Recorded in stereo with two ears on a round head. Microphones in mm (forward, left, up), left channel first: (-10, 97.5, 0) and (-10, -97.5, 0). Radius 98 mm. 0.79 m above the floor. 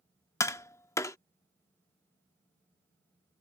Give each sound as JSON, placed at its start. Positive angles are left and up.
{"t": 0.4, "sound": "tapping", "side_deg": 15}